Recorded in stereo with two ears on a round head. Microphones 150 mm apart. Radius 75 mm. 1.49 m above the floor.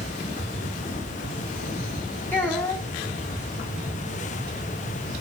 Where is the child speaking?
10° left (ahead or behind), 6.5 m.